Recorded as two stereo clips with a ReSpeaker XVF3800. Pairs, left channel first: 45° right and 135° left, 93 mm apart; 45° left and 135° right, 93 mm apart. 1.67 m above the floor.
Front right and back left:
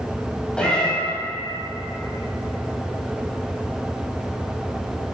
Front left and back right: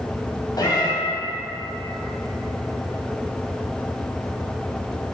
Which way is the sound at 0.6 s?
30° left.